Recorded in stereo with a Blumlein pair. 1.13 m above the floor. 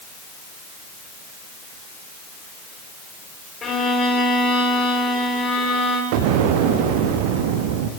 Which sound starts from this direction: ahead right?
An explosion, at 6.1 s.